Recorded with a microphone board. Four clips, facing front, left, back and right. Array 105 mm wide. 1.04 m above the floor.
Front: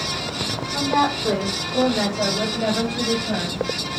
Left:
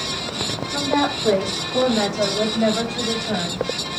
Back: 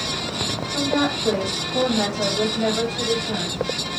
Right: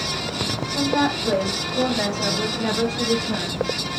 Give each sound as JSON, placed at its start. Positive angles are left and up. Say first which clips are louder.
{"t": 0.7, "sound": "a woman speaking", "louder": "even, front 2 dB", "azimuth_deg": 65, "distance_m": 5.5}